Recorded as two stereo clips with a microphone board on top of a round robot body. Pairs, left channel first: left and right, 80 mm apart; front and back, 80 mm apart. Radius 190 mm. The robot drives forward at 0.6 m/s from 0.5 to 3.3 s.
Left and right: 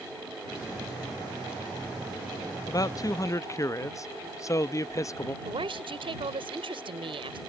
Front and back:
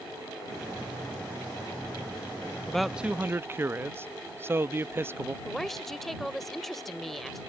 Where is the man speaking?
75° left; by 5.3 s 125° left.